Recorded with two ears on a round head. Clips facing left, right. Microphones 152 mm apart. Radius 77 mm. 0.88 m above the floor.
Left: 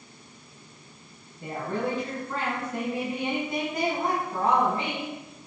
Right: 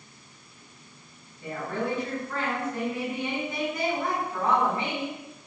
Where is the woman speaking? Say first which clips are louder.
Left 1 dB; 30° left (ahead or behind), 6.5 m.